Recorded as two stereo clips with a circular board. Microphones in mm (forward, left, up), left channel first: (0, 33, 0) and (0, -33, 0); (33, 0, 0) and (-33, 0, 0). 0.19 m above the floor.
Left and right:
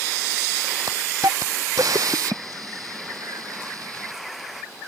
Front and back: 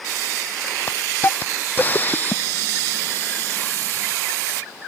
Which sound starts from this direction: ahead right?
A hiss, at 0.9 s.